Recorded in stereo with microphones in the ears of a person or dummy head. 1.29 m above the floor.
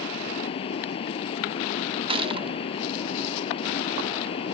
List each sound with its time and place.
0.0 s running water: 30° left (ahead or behind)
2.1 s a gunshot: 30° right (ahead or behind)